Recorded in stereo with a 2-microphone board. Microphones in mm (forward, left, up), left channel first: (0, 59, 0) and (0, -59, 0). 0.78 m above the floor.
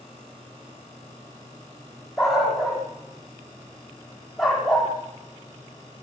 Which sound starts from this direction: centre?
A dog barking, at 2.2 s.